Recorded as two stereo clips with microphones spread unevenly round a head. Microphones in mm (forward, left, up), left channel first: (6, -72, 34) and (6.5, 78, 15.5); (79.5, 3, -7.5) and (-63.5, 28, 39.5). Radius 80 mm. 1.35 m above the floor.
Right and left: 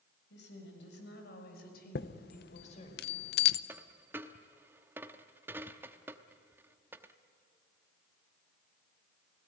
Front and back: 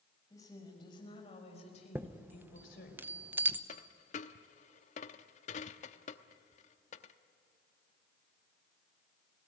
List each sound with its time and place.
0.3 s a woman speaking: 85° right, 6.5 m; by 3.0 s 40° right, 5 m
1.9 s a chime: 115° right, 0.7 m
3.7 s a dropped coin: 15° left, 0.8 m